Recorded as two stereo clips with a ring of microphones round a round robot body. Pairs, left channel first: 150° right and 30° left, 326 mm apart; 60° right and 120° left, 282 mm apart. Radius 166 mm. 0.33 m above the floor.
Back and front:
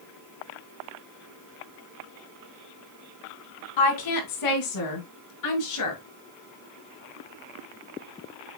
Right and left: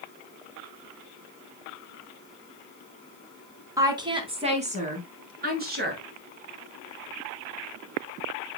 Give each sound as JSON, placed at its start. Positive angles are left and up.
{"t": 3.8, "sound": "a woman speaking", "azimuth_deg": -160, "distance_m": 2.5}